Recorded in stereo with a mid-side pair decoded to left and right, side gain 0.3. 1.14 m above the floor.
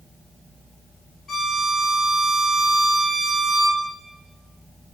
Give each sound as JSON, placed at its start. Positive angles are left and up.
{"t": 1.3, "sound": "a violin", "azimuth_deg": 65, "distance_m": 4.0}